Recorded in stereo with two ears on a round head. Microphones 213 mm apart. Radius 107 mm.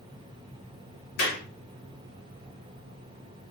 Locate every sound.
1.2 s a clap: 45° left (ahead or behind), 2 m